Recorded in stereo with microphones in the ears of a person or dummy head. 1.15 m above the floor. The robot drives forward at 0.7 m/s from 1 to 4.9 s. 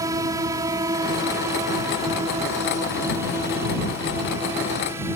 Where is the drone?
20° right (ahead or behind); by 5.2 s 15° right (ahead or behind).